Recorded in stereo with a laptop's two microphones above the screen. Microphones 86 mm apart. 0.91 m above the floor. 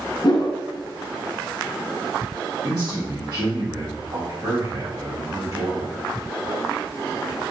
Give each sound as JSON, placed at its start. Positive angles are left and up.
{"t": 0.2, "sound": "a whoosh", "side_deg": 50, "distance_m": 0.6}
{"t": 2.6, "sound": "a man speaking", "side_deg": -45, "distance_m": 1.6}